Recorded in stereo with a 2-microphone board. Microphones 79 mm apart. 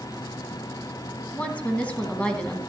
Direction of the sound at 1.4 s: 15° left (ahead or behind).